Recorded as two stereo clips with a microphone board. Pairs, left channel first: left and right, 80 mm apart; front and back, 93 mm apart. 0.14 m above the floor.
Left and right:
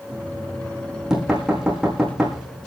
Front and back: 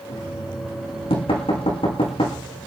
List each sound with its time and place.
0.1 s knocking: 5° right, 6 m